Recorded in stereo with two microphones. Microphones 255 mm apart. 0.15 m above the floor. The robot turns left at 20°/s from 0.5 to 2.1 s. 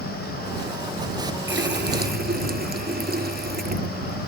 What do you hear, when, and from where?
1.5 s a running tap: 50° right (ahead or behind); by 4.2 s 35° right (ahead or behind)